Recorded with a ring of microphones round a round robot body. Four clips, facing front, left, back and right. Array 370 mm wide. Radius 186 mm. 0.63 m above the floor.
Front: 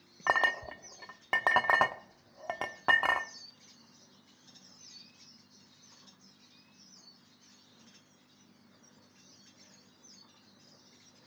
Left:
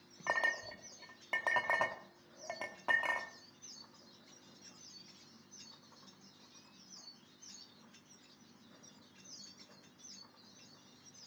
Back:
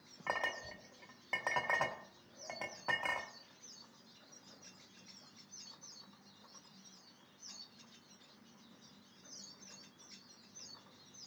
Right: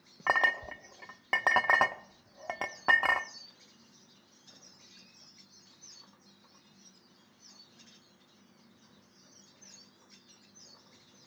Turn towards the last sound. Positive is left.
turn(degrees=-40)